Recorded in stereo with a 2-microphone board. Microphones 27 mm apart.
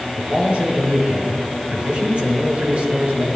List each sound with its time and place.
0.2 s a man speaking: 50° right (ahead or behind), 4 m